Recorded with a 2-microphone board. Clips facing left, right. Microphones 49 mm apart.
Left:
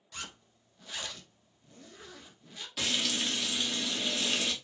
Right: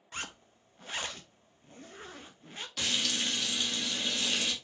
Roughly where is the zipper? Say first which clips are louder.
Right 3 dB; right.